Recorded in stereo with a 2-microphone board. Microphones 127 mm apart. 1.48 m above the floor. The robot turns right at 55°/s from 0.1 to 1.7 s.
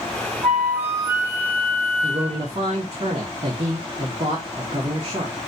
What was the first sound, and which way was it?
A flute, 175° right.